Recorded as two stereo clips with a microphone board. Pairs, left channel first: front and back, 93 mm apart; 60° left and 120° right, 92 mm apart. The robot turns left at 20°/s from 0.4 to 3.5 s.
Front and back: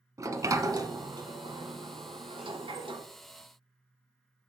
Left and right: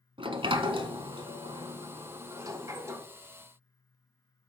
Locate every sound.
0.2 s a sliding door: 130° right, 0.7 m; by 3.0 s straight behind, 0.7 m